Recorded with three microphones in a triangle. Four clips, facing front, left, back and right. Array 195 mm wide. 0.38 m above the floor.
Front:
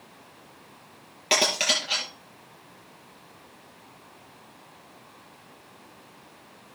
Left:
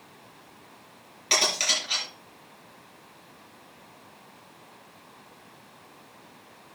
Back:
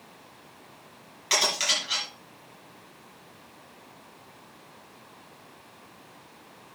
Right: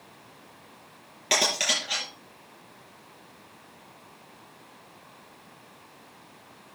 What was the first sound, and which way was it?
Cutlery clinking, 20° right.